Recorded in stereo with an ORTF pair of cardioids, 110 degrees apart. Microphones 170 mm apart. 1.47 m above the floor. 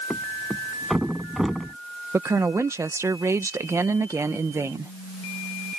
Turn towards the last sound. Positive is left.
turn(degrees=-15)